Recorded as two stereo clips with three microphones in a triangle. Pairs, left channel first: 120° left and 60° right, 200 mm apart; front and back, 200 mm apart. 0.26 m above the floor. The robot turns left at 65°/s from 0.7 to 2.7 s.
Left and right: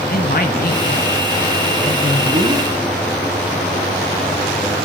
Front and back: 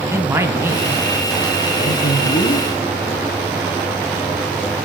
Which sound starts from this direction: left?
A man speaking, at 0.1 s.